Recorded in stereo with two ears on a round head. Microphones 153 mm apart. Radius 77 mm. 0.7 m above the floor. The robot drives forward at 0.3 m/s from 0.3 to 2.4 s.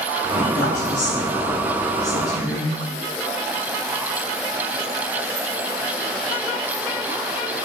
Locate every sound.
0.4 s a woman speaking: 45° left (ahead or behind), 1.1 m